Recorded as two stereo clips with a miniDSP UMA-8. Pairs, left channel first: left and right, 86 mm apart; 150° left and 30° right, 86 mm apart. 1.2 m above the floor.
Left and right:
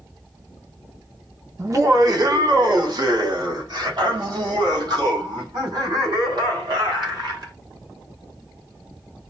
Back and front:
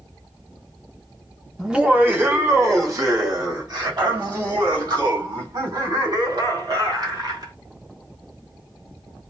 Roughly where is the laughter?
Right.